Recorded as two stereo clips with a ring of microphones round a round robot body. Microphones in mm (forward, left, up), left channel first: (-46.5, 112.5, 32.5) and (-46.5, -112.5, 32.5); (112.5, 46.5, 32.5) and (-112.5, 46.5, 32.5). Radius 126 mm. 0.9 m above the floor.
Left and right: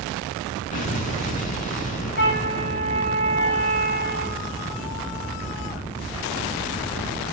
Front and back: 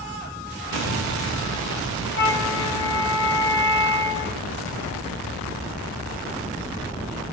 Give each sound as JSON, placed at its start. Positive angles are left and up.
{"t": 0.7, "sound": "an explosion", "azimuth_deg": 30, "distance_m": 2.5}
{"t": 2.1, "sound": "a flute", "azimuth_deg": 35, "distance_m": 5.5}